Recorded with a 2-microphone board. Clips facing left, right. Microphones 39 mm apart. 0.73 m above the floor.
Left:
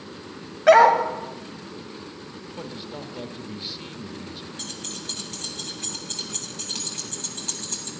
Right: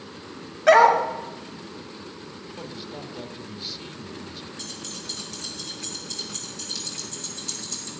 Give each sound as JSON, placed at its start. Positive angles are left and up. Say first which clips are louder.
{"t": 0.7, "sound": "a dog barking", "louder": "left 1 dB", "side_deg": 5, "distance_m": 1.4}
{"t": 2.6, "sound": "a man speaking", "louder": "left 2 dB", "side_deg": 20, "distance_m": 1.3}
{"t": 4.6, "sound": "keys jangling", "louder": "left 1 dB", "side_deg": 50, "distance_m": 3.0}